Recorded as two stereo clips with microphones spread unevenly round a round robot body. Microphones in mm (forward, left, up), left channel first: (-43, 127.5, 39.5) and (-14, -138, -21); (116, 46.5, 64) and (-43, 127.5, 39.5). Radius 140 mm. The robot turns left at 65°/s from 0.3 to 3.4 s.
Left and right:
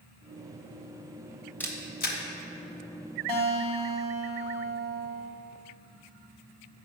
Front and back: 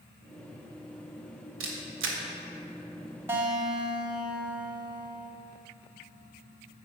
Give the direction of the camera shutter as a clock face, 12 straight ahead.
6 o'clock.